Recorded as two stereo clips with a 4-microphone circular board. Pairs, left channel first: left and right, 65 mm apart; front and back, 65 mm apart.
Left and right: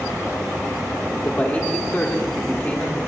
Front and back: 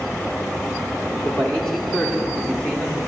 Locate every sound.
1.2 s a man speaking: 60° left, 0.9 m